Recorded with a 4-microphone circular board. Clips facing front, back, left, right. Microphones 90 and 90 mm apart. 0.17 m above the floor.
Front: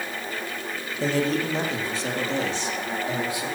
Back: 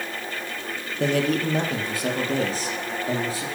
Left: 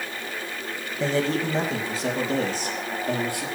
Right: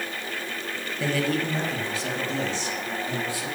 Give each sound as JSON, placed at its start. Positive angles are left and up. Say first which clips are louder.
{"t": 1.0, "sound": "a man speaking", "louder": "back 2 dB, left 2 dB", "azimuth_deg": 155, "distance_m": 4.0}